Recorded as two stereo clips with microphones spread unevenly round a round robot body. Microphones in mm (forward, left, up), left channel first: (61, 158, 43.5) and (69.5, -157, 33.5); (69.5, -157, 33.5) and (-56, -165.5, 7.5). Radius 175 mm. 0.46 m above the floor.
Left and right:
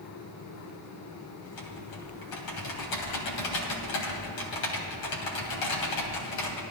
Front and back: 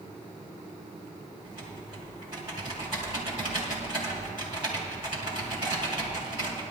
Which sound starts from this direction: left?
Typing on a keyboard, at 1.4 s.